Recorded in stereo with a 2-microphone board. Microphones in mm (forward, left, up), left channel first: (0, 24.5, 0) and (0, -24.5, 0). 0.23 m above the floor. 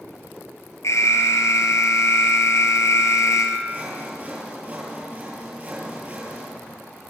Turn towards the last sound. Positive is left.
turn(degrees=-30)  # may be behind; listen again after turning